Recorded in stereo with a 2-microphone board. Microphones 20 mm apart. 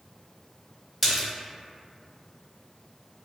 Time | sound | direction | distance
1.0 | a splash | 5° left (ahead or behind) | 0.7 m